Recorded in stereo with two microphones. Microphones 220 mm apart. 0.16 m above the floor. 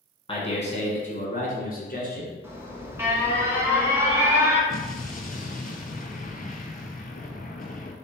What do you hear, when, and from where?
0.3 s a man speaking: 25° left (ahead or behind), 1.1 m; by 2.3 s 45° left (ahead or behind), 1.7 m
2.4 s an alarm: 10° right (ahead or behind), 1.0 m
4.7 s an explosion: 40° left (ahead or behind), 0.6 m